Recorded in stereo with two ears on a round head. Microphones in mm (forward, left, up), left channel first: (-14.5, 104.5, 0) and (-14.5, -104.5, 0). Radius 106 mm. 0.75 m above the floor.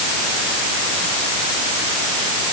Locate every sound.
Only background noise.